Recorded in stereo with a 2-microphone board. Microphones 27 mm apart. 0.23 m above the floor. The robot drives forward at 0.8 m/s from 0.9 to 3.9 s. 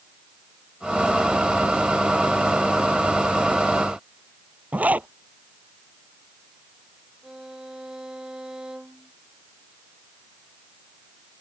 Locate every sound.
4.7 s a zipper: 70° right (ahead or behind)
7.2 s a violin: 25° right (ahead or behind)